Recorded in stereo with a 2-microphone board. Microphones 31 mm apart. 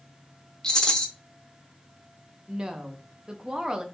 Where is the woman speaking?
25° right (ahead or behind), 0.7 m.